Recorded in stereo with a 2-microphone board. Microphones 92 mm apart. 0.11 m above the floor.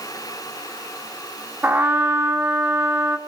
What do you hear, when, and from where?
1.6 s a trumpet: 15° right (ahead or behind), 1.3 m